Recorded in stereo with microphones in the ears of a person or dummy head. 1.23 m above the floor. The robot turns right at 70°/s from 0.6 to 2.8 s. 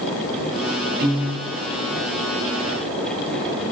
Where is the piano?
135° right, 0.5 m; by 1.5 s 95° right, 0.5 m.